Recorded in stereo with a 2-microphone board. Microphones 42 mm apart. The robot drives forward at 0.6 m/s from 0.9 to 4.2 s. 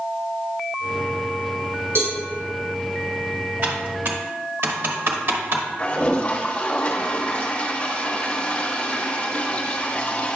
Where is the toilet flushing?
35° left (ahead or behind), 1.1 m.